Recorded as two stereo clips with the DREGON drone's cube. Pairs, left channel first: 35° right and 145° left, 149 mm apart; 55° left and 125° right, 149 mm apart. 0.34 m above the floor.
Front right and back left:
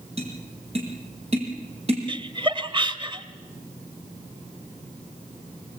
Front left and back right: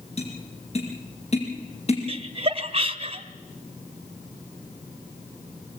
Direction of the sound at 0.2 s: 100° left.